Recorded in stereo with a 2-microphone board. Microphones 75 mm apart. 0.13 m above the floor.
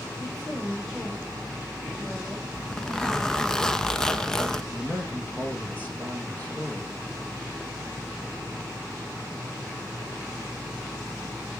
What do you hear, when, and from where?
0.2 s a woman speaking: 10° left (ahead or behind), 8 m; by 3.5 s 10° right (ahead or behind), 7.5 m
2.5 s a zipper: 5° left (ahead or behind), 0.8 m
4.7 s a man speaking: 25° left (ahead or behind), 2.5 m